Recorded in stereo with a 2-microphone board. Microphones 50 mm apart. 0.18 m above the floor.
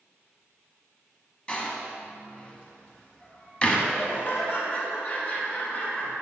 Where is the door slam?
20° left (ahead or behind), 0.9 m.